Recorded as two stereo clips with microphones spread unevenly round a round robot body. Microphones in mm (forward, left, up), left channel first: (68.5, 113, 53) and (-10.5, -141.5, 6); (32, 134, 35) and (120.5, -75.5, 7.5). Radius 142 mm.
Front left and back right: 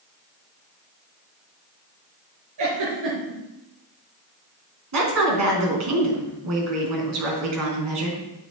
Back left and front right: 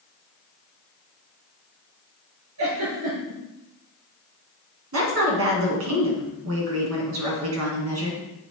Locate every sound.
2.6 s a giggle: 100° right, 4 m
4.9 s a woman speaking: 95° right, 3.5 m